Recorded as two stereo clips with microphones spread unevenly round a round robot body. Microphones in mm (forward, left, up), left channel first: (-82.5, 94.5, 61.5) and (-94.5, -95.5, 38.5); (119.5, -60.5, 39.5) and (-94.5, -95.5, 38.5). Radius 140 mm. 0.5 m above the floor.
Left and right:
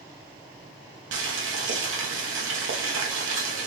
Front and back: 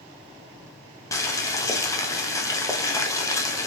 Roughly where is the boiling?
Right.